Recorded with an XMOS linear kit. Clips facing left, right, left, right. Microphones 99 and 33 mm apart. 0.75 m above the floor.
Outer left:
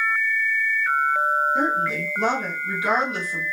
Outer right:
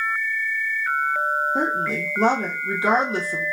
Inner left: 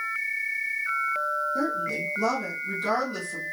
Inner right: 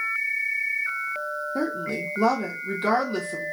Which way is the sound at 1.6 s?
35° right (ahead or behind).